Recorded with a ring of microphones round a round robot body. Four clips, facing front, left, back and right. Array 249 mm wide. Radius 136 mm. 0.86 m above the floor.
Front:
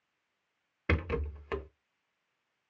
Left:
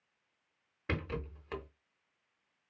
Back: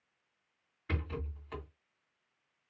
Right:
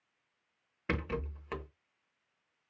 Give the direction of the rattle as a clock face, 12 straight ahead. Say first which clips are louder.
Right 2 dB, front 7 dB; 12 o'clock.